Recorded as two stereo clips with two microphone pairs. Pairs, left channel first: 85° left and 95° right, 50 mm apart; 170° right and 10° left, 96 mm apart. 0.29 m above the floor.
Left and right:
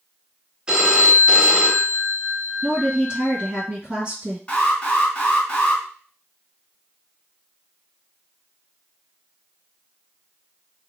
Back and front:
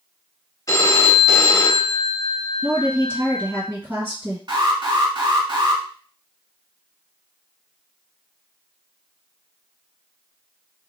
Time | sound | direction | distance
0.7 | a phone ringing | 145° right | 0.7 m
2.6 | a woman speaking | 45° right | 1.7 m
4.5 | an alarm | 25° left | 2.0 m